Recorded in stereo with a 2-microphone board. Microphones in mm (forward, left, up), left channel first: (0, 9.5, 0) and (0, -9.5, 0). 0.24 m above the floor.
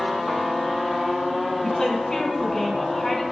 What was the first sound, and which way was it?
A woman speaking, 25° left (ahead or behind).